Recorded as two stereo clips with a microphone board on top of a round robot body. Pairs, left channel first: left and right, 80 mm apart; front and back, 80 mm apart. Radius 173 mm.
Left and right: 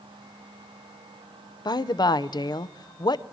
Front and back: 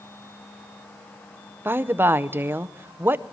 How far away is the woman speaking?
About 0.8 m.